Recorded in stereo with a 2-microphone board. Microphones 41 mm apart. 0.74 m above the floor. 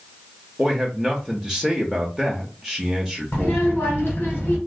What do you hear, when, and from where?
0.6 s a man speaking: 10° right (ahead or behind), 0.7 m
3.3 s a child speaking: 55° left (ahead or behind), 1.3 m